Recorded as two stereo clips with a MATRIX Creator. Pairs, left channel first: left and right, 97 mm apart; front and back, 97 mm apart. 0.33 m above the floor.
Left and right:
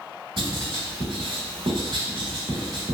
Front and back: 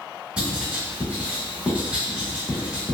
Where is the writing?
105° right, 1.1 m.